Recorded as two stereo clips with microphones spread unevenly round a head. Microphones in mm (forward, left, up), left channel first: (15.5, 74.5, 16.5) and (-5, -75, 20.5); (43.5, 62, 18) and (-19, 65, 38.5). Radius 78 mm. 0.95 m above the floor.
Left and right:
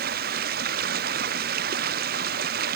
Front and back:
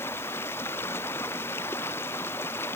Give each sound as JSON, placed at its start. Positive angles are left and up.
{"t": 0.0, "sound": "running water", "azimuth_deg": -70}